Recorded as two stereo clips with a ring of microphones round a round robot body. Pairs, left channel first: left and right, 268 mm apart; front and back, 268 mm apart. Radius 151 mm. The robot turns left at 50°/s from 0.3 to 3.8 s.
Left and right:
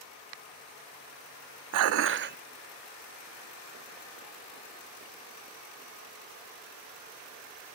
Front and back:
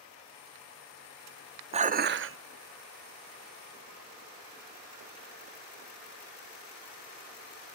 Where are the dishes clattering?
115° right, 0.7 m; by 2.4 s 145° right, 0.7 m.